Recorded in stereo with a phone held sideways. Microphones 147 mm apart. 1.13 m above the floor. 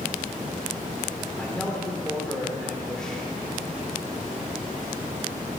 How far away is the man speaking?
About 4 m.